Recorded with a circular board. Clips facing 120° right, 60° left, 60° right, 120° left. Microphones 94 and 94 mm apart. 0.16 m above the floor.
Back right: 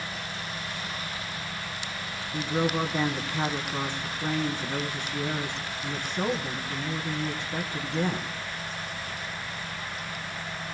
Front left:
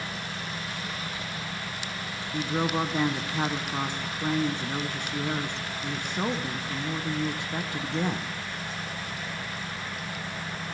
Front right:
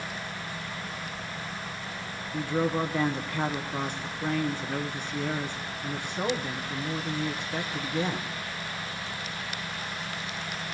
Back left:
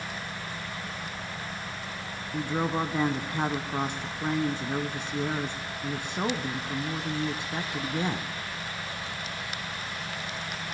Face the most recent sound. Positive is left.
turn(degrees=95)